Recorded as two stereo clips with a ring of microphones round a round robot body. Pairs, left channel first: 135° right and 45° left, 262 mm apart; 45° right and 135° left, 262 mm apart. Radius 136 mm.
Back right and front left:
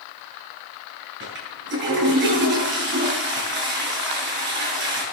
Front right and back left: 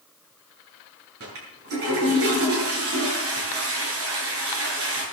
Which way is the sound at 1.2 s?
95° left.